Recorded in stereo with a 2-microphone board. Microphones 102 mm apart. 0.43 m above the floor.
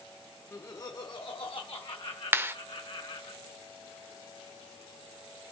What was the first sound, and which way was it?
Laughter, 25° left (ahead or behind).